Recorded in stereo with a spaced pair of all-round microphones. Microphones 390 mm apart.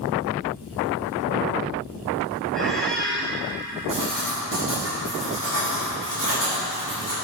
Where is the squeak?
Centre (ahead or behind), 1.3 m.